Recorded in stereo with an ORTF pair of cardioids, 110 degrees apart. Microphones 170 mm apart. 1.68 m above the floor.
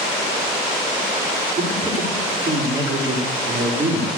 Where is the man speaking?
30° right, 5 m.